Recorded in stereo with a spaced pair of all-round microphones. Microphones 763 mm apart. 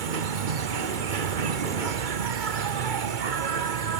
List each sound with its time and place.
0.0 s an insect: 75° right (ahead or behind)